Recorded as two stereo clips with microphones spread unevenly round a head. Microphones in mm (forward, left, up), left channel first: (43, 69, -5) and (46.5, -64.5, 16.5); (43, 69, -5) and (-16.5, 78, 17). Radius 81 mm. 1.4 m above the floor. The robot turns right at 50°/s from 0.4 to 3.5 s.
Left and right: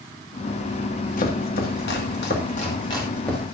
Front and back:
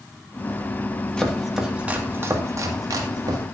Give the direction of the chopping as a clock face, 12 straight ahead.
10 o'clock.